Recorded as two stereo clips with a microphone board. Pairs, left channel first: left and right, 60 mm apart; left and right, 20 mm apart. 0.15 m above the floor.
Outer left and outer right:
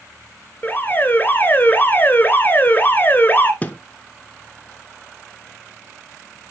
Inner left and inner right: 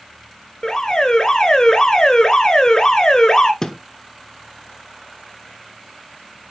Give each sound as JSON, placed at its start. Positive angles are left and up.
{"t": 0.6, "sound": "an alarm", "side_deg": 30, "distance_m": 1.9}
{"t": 3.6, "sound": "a thud", "side_deg": 25, "distance_m": 0.9}